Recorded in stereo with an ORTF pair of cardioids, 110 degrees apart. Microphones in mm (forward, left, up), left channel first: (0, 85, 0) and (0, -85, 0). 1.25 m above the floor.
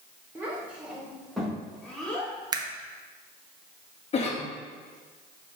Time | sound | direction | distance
0.3 | a child speaking | 10° right | 2.5 m
2.5 | a camera shutter | 25° right | 1.0 m
4.1 | a cough | 40° left | 1.7 m